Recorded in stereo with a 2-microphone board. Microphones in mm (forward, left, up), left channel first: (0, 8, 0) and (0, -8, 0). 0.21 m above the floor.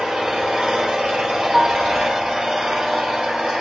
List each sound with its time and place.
0.0 s an engine running: 55° right (ahead or behind), 1.9 m
1.5 s a piano: 10° right (ahead or behind), 0.8 m